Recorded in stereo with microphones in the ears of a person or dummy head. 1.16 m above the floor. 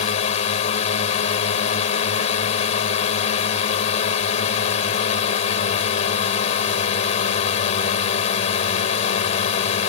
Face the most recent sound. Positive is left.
turn(degrees=40)  # may be behind; listen again after turning